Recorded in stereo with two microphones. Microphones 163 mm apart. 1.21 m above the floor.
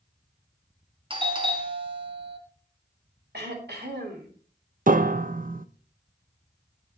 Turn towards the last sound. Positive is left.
turn(degrees=-55)  # may be behind; listen again after turning